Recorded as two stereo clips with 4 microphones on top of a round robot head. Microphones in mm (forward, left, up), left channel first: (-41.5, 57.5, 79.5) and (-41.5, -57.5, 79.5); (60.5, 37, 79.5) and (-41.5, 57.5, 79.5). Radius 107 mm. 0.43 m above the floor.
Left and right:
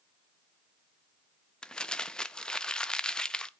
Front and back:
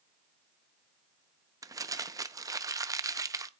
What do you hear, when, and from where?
1.6 s crumpling: 170° left, 0.6 m